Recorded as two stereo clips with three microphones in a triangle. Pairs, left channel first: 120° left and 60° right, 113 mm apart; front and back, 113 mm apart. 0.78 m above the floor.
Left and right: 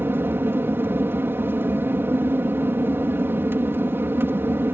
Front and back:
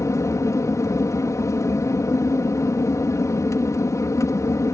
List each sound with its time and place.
0.0 s an aircraft: 15° right